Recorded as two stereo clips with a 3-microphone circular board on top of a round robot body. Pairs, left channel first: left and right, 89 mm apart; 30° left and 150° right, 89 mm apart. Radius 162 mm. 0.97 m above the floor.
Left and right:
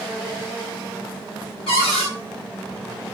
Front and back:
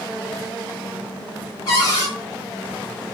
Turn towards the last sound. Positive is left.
turn(degrees=80)